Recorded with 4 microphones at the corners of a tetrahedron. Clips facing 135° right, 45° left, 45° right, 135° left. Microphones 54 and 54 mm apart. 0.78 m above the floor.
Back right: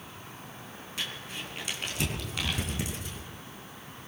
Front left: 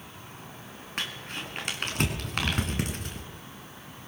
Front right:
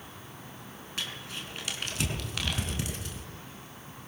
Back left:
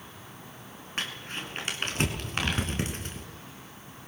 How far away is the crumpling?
About 3.5 m.